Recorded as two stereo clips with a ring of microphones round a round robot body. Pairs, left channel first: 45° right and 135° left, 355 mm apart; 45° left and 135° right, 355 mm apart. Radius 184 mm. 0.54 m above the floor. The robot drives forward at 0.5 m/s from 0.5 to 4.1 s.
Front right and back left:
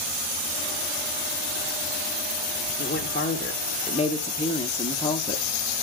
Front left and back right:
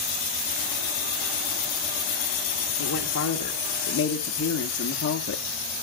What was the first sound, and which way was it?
A woman speaking, 10° left.